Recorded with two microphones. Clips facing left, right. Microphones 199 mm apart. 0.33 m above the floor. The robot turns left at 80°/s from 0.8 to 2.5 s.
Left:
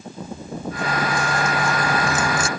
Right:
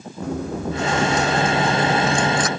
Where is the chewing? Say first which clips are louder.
Right 7 dB; 75° right; by 2.5 s 150° left.